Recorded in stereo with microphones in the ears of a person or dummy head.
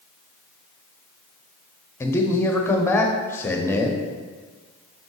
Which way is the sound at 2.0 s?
15° left (ahead or behind).